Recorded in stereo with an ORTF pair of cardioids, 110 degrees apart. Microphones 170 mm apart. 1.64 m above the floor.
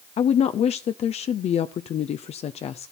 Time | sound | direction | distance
0.2 | a woman speaking | 40° left | 0.6 m